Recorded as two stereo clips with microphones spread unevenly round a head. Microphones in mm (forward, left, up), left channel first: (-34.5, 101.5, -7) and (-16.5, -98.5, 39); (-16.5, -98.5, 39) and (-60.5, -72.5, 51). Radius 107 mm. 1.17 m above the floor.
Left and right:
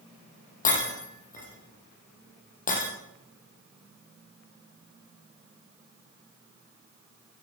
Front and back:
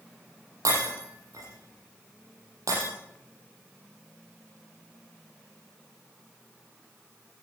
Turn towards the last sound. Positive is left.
turn(degrees=150)